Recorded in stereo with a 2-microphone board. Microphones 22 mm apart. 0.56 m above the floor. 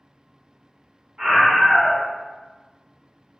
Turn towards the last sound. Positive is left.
turn(degrees=-50)  # may be behind; listen again after turning